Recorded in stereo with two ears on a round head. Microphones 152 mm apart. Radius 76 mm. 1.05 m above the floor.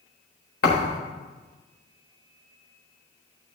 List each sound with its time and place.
0.6 s a thud: 65° left (ahead or behind), 4 m